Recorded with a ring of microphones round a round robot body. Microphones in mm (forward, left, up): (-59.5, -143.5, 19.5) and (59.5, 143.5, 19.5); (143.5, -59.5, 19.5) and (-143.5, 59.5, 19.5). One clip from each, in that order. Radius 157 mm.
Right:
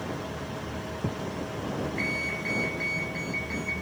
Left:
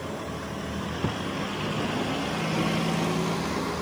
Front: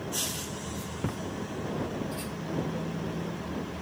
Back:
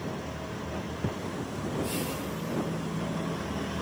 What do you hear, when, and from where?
1.0 s a thud: 45° left